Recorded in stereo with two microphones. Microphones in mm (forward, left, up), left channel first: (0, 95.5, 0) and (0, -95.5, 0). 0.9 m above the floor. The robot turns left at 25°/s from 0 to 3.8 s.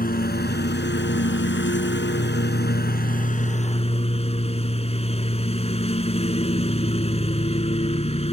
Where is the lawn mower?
130° left; by 8.3 s 35° left.